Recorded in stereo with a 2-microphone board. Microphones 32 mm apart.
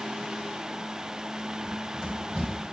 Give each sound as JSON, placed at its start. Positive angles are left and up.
{"t": 1.6, "sound": "running footsteps", "side_deg": -25, "distance_m": 3.5}